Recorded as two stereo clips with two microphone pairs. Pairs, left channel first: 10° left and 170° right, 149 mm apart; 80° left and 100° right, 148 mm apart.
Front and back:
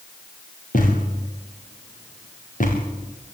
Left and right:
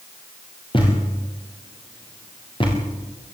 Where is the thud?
30° left, 6.5 m.